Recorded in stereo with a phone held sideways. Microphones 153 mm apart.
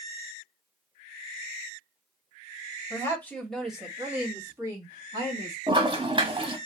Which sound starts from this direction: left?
A woman speaking, at 2.9 s.